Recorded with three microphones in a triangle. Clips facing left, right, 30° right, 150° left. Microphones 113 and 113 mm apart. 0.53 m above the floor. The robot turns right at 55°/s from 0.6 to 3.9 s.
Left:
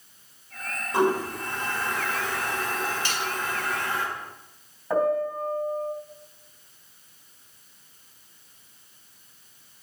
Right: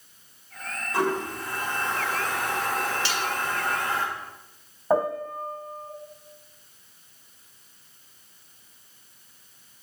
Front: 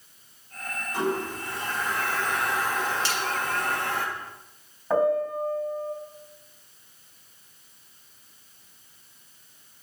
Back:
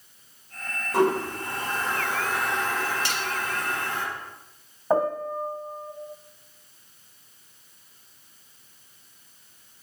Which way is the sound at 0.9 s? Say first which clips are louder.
Left 3 dB, back 6 dB; 155° left.